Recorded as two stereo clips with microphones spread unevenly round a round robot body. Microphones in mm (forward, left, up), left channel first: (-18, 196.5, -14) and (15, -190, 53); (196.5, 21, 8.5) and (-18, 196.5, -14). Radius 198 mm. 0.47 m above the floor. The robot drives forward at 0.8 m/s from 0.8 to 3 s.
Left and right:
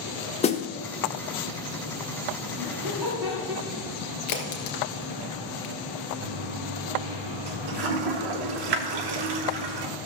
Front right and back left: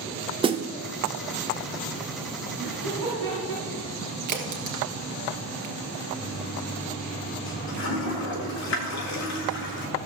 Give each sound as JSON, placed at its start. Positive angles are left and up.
{"t": 0.4, "sound": "a snare drum", "azimuth_deg": 110, "distance_m": 0.8}
{"t": 2.6, "sound": "laughter", "azimuth_deg": -175, "distance_m": 3.0}
{"t": 4.3, "sound": "a crack", "azimuth_deg": 135, "distance_m": 2.5}
{"t": 6.2, "sound": "a toilet flushing", "azimuth_deg": -80, "distance_m": 1.2}